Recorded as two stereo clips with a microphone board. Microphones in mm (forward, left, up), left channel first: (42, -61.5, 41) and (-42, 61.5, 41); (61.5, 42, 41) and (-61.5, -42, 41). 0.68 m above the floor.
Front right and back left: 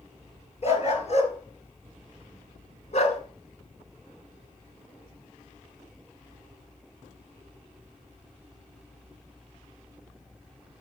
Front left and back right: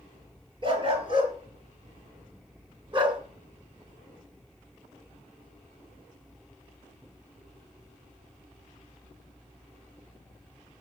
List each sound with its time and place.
0.6 s a dog barking: 95° right, 4.5 m